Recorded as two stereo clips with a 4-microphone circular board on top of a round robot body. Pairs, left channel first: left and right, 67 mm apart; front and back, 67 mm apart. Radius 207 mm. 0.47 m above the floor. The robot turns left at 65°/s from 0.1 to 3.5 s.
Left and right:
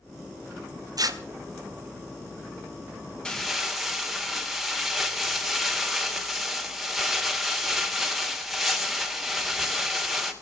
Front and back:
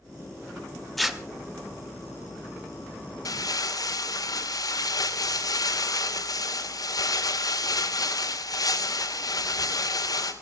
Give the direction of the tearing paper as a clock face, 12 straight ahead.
3 o'clock.